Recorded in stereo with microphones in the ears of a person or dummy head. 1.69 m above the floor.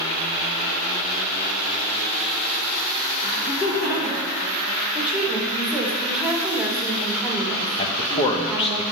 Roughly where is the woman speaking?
Centre.